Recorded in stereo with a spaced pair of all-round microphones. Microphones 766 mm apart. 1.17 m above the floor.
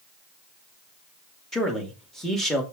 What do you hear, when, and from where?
1.5 s a man speaking: centre (ahead or behind), 2.5 m